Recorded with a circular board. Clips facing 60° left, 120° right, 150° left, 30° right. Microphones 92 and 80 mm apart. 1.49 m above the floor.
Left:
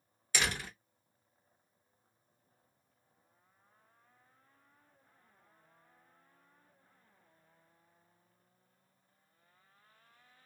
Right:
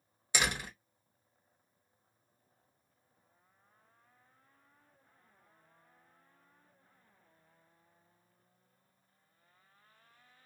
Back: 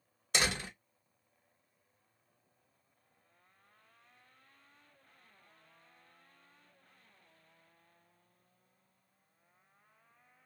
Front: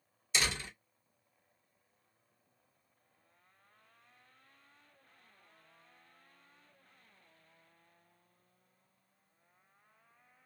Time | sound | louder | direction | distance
0.3 | a door slam | right 1 dB, back 2 dB | 170° left | 1.5 m